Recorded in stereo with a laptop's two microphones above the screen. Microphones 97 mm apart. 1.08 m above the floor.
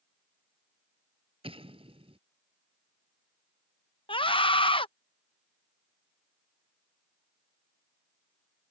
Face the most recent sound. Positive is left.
turn(degrees=65)  # may be behind; listen again after turning